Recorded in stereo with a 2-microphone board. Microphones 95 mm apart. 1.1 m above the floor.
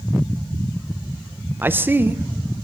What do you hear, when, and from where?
1.6 s a man speaking: 20° right (ahead or behind), 0.6 m